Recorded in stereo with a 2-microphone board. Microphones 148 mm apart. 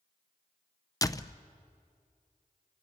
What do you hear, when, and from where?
1.0 s a door slam: 25° left (ahead or behind), 0.5 m